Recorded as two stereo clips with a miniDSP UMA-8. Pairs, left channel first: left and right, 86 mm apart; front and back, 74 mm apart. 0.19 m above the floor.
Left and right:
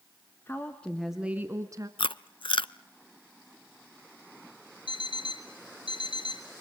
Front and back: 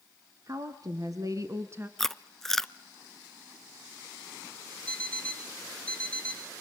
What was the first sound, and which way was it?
A woman speaking, 150° left.